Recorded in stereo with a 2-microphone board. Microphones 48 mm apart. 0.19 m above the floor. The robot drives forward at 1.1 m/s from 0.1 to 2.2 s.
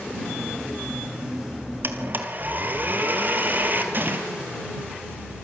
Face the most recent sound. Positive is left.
turn(degrees=-45)  # may be behind; listen again after turning